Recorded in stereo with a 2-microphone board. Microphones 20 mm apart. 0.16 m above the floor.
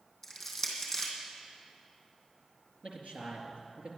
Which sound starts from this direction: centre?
Crushing, at 0.2 s.